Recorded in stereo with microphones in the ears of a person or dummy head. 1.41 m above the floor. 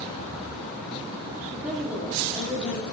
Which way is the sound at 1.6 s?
5° right (ahead or behind).